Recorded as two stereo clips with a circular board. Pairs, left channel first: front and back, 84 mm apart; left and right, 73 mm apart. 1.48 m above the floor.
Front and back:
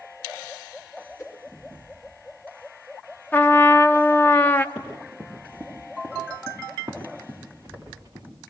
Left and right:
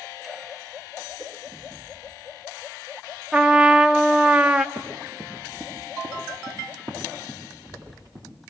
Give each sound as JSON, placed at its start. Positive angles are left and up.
{"t": 1.2, "sound": "a whoosh", "azimuth_deg": -60, "distance_m": 5.5}
{"t": 3.3, "sound": "a trumpet", "azimuth_deg": -30, "distance_m": 0.7}
{"t": 4.8, "sound": "running footsteps", "azimuth_deg": -95, "distance_m": 7.5}